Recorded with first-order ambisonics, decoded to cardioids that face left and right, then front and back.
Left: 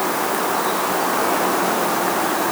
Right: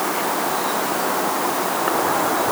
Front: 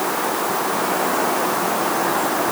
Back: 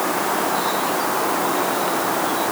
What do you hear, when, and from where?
Only background noise.